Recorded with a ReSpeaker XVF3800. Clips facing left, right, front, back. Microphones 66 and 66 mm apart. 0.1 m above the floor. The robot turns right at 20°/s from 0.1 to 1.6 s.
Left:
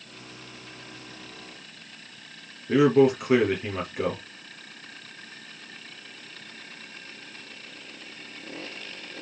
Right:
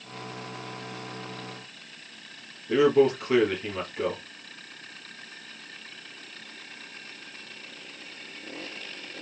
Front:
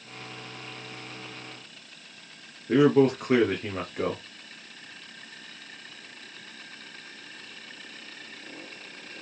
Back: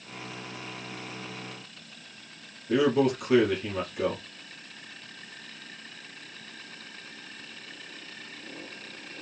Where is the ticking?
I don't hear ticking.